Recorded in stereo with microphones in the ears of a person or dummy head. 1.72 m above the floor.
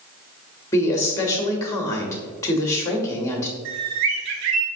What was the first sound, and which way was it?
A woman speaking, 15° left (ahead or behind).